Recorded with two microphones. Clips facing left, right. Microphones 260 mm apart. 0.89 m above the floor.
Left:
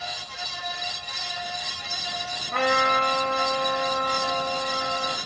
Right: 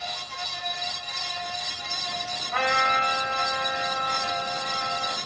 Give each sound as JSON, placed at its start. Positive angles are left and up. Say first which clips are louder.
{"t": 2.5, "sound": "a trumpet", "louder": "left 5 dB", "side_deg": 50, "distance_m": 1.7}